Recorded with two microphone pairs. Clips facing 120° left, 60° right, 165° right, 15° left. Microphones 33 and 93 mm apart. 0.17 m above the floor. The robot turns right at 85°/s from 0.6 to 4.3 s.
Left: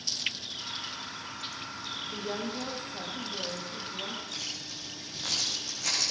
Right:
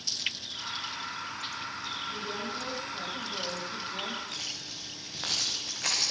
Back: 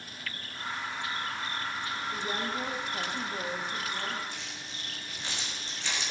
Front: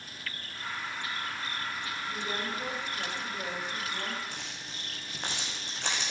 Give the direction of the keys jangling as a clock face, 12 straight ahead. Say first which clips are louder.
Even, even; 1 o'clock.